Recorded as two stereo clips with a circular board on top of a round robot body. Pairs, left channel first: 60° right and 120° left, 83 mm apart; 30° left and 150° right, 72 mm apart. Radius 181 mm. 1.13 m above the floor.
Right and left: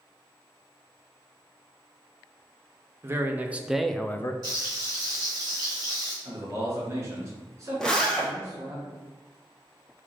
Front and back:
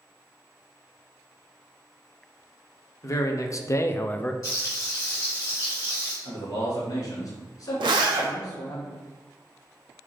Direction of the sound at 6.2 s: 60° left.